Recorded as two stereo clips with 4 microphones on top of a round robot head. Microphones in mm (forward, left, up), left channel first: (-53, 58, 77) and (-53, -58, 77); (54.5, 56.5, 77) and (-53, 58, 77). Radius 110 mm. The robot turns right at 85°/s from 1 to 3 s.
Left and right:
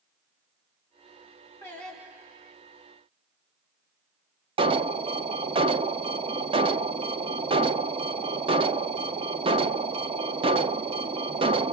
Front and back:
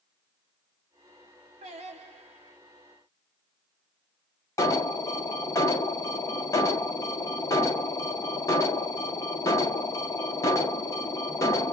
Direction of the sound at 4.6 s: 60° right.